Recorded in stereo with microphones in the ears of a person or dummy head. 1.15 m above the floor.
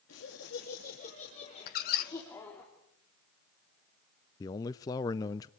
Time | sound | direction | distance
0.1 | laughter | 70° left (ahead or behind) | 2.5 m
1.7 | a squeak | 35° left (ahead or behind) | 0.6 m
4.4 | a man speaking | 20° left (ahead or behind) | 0.5 m